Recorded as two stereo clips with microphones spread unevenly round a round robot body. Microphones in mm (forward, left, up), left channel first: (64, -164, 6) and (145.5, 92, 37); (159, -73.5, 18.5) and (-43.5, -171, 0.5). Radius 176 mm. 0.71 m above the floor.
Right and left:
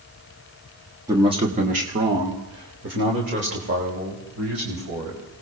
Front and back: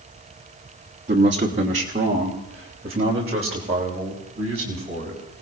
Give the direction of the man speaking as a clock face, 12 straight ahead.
7 o'clock.